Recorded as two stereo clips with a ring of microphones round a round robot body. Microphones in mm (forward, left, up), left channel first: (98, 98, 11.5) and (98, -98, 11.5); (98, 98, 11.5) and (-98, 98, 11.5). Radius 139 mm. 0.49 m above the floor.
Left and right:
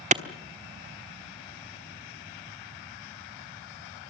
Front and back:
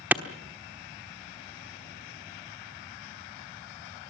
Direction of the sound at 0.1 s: 105° right.